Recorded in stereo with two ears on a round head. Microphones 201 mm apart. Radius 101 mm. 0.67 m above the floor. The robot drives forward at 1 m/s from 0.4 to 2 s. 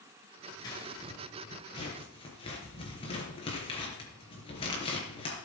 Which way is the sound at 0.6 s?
20° left (ahead or behind).